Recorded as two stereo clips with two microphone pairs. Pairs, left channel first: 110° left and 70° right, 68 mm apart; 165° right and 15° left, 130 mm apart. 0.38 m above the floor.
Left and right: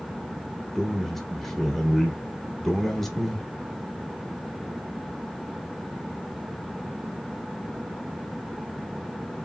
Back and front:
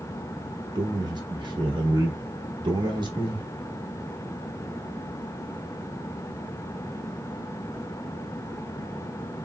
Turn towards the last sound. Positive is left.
turn(degrees=30)